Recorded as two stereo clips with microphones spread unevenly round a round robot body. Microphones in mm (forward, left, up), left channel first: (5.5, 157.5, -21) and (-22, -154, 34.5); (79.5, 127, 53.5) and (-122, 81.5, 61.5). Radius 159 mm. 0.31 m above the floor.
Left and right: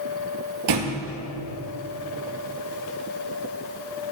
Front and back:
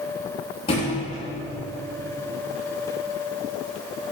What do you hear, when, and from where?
0.7 s a thud: 60° right, 2 m